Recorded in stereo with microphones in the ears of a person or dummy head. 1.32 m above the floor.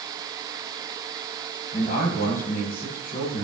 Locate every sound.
1.7 s a man speaking: 55° left (ahead or behind), 7 m